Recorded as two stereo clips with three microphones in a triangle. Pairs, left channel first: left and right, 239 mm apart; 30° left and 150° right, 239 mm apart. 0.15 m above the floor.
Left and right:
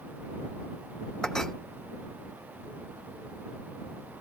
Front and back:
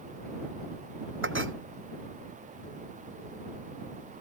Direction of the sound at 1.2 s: Straight behind.